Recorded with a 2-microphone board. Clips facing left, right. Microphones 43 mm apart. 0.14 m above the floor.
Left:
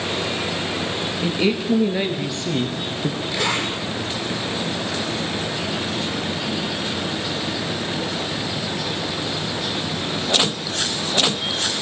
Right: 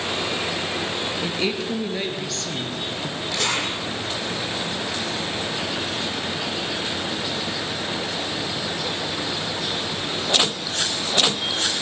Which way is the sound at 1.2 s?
5° left (ahead or behind).